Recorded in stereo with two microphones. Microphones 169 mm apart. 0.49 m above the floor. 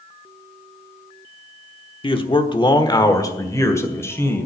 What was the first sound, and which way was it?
A man speaking, 30° left (ahead or behind).